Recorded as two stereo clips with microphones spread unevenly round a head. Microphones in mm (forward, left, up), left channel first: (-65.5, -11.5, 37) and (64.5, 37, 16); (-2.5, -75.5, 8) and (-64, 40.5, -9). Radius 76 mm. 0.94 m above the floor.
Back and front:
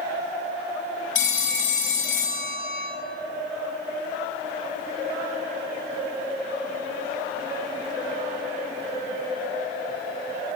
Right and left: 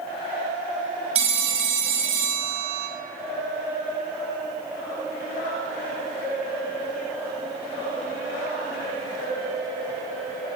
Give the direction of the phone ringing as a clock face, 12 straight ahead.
7 o'clock.